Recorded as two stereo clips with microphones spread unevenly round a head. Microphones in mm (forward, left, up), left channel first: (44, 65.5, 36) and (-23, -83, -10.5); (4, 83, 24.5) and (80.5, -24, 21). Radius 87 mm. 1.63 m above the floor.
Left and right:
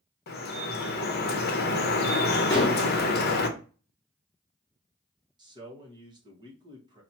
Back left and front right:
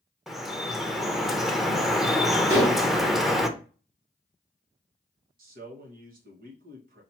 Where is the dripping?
35° left, 0.8 m.